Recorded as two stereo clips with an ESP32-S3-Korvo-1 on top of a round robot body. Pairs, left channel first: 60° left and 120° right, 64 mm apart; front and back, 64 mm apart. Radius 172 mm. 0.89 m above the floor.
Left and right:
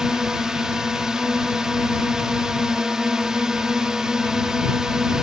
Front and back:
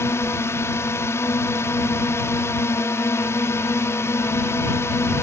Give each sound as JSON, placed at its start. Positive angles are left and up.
{"t": 0.0, "sound": "a drone", "azimuth_deg": -40}